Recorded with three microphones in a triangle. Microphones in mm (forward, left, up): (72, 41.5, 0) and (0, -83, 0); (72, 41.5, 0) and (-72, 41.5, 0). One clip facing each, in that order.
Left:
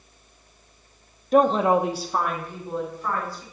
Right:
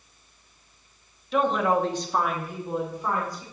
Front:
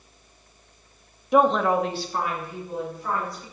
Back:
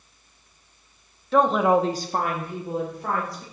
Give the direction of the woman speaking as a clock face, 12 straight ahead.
10 o'clock.